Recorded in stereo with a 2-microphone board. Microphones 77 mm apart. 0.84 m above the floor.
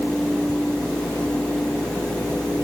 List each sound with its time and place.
Only background noise.